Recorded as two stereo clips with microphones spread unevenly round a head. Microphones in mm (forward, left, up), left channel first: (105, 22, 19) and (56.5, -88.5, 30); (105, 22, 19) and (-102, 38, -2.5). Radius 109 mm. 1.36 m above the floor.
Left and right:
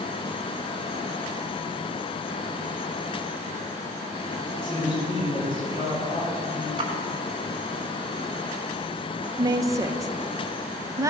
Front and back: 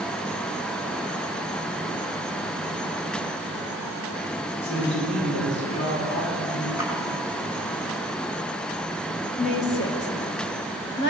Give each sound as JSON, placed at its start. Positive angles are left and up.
{"t": 4.5, "sound": "a woman speaking", "azimuth_deg": 20, "distance_m": 6.0}
{"t": 6.8, "sound": "a splash", "azimuth_deg": -70, "distance_m": 4.5}
{"t": 9.4, "sound": "a woman speaking", "azimuth_deg": -50, "distance_m": 1.8}